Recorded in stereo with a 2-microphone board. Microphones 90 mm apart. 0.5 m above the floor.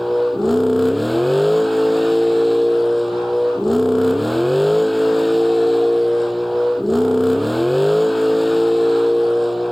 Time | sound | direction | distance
0.0 | a vehicle | centre (ahead or behind) | ?